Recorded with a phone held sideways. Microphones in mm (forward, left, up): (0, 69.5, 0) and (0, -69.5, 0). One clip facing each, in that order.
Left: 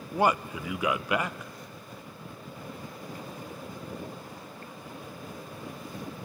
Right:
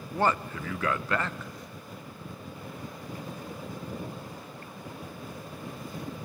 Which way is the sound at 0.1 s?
10° left (ahead or behind).